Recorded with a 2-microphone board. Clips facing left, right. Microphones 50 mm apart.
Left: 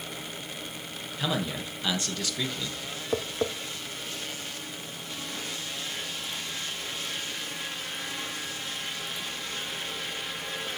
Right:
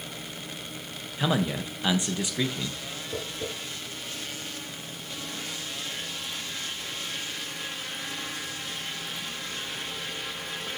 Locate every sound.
1.2 s a man speaking: 15° right (ahead or behind), 0.9 m
3.1 s tapping: 55° left (ahead or behind), 0.7 m